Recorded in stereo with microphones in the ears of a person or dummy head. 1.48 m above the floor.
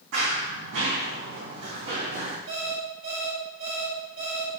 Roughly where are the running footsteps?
Right.